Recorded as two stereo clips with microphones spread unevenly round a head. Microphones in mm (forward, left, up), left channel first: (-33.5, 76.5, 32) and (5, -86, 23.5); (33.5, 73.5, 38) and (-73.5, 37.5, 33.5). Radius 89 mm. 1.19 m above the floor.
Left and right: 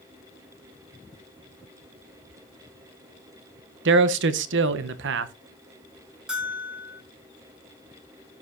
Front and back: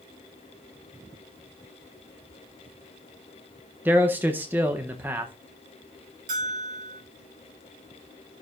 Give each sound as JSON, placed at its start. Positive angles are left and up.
{"t": 3.9, "sound": "a man speaking", "azimuth_deg": -85, "distance_m": 0.7}
{"t": 6.3, "sound": "a bell", "azimuth_deg": -165, "distance_m": 2.5}